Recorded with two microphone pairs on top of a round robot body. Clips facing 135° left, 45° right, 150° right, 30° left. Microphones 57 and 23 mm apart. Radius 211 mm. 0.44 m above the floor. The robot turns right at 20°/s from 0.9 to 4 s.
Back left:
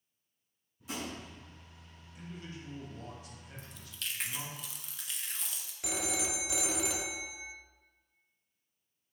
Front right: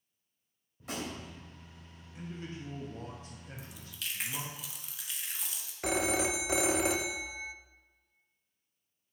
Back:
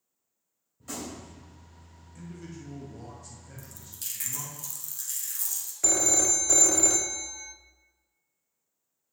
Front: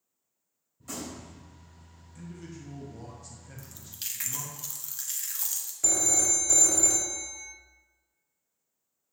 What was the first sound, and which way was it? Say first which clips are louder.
A gunshot: front right 1 dB, back 1 dB; 80° right.